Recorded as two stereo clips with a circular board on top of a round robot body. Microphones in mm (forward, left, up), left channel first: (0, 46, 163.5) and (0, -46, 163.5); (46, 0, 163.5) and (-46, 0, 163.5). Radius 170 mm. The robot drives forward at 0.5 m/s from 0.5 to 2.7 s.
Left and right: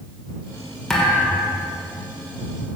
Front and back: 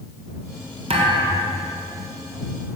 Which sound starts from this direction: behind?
A thud, at 0.9 s.